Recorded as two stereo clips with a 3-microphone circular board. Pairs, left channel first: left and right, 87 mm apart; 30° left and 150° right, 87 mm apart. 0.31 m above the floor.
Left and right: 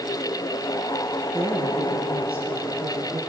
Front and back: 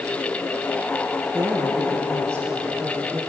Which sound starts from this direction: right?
A woman speaking, at 1.3 s.